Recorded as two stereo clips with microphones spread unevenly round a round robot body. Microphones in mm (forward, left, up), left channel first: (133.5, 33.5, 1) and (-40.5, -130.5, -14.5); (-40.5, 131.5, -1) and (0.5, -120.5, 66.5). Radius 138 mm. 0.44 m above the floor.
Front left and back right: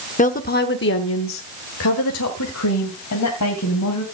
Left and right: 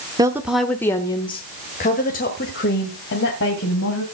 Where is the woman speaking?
5° left, 0.9 m; by 4.0 s 65° left, 2.5 m.